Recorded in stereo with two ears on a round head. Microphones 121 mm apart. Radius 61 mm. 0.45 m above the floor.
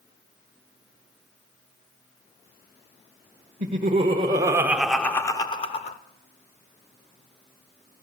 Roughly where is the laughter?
Right.